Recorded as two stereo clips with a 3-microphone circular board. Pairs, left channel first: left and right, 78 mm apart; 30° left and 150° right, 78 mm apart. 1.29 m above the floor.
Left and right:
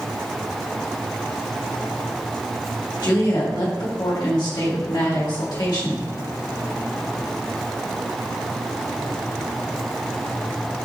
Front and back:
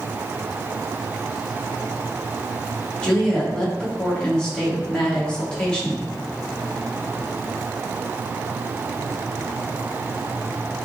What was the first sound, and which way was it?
A woman speaking, 105° left.